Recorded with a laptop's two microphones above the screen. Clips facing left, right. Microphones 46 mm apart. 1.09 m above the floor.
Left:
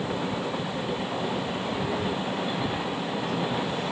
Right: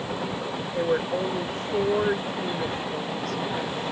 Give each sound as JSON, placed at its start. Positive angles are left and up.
{"t": 0.7, "sound": "a woman speaking", "side_deg": -75}